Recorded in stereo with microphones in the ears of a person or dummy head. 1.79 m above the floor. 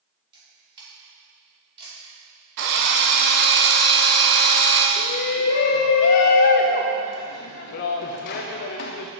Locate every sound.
0.3 s a camera shutter: 30° right (ahead or behind), 3 m
2.6 s a drill: 55° right (ahead or behind), 0.9 m
5.0 s a shout: 45° left (ahead or behind), 0.6 m